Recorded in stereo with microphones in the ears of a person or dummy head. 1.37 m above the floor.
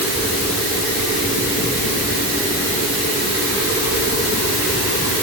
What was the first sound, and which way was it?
Only background noise.